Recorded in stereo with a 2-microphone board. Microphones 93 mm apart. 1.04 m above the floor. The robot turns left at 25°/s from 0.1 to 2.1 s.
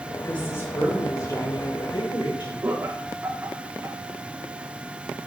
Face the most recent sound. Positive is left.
turn(degrees=-30)  # may be behind; listen again after turning